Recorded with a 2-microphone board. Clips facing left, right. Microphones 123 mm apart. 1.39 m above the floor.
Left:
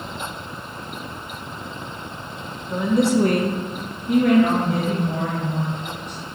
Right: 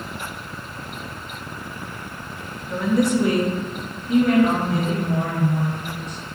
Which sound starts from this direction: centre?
A woman speaking, at 2.7 s.